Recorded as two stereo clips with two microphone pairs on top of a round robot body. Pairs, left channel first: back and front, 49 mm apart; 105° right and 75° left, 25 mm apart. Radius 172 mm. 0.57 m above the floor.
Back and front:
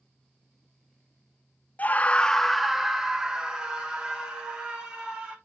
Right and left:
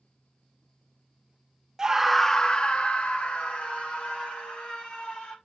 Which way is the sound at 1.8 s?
135° left.